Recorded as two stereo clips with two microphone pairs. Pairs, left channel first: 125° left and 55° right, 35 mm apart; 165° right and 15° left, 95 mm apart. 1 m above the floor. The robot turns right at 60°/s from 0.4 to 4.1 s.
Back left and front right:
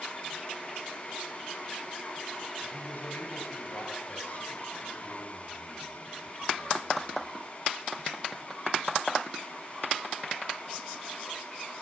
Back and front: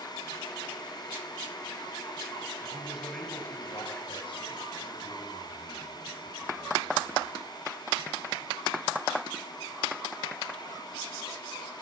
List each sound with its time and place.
2.6 s a man speaking: 75° left, 5.5 m; by 7.4 s 165° left, 5.5 m